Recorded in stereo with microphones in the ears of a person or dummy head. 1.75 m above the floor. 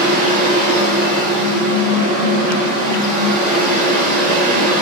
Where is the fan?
45° right (ahead or behind), 1.4 m.